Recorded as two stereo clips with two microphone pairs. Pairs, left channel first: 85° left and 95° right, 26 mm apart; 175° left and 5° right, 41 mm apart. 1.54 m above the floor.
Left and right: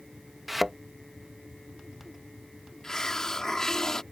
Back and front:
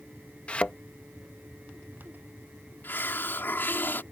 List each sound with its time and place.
0.5 s a thud: 170° left
2.8 s a hiss: 155° left